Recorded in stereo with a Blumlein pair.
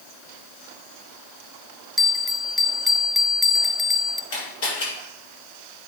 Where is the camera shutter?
50° left, 5.5 m.